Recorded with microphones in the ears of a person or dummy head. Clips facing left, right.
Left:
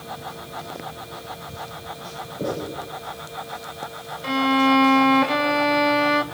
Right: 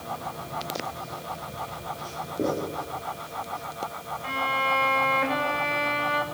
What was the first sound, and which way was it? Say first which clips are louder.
Writing: right 1 dB; 60° right (ahead or behind).